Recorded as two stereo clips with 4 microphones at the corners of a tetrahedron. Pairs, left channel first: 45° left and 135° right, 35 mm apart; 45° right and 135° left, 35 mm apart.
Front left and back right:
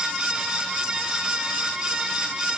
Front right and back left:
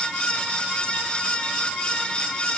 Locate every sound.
Only background noise.